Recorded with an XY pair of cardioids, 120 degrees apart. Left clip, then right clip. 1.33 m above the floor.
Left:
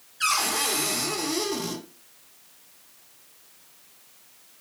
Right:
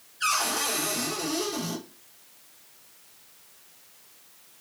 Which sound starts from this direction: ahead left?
A cupboard door, at 0.2 s.